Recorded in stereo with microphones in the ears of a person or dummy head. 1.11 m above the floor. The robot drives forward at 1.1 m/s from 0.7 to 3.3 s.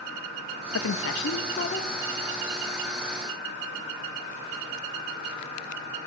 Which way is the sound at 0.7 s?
65° left (ahead or behind).